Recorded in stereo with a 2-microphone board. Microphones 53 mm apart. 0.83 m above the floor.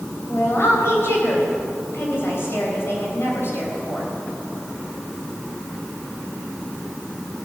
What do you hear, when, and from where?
0.3 s a woman speaking: 50° left (ahead or behind), 4 m